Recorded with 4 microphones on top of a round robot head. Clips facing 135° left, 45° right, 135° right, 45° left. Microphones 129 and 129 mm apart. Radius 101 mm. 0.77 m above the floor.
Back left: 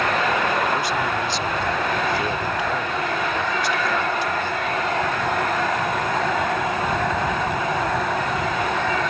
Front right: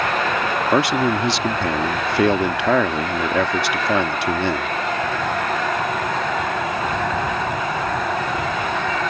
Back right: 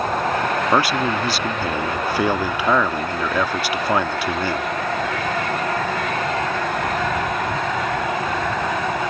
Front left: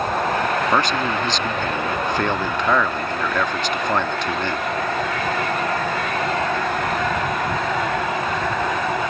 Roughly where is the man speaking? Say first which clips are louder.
Front right 5 dB, back right 1 dB; ahead right.